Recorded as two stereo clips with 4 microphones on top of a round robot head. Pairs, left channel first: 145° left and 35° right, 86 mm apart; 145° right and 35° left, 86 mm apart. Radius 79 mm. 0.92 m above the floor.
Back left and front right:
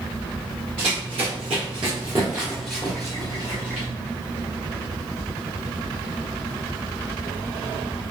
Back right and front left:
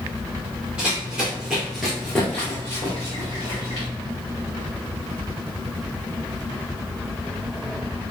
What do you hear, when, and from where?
0.8 s running footsteps: 45° right, 1.6 m; by 3.9 s 165° left, 1.2 m